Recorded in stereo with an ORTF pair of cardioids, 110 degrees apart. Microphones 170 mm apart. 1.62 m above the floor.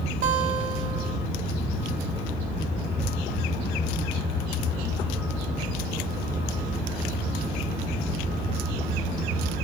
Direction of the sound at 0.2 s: 55° right.